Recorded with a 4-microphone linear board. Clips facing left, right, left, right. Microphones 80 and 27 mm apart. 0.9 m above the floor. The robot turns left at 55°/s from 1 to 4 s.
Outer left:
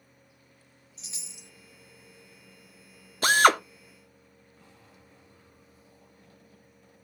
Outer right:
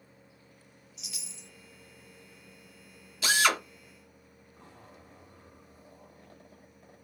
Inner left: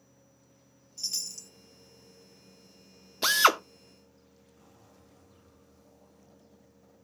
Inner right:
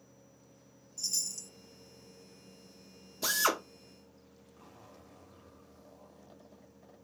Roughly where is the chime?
Left.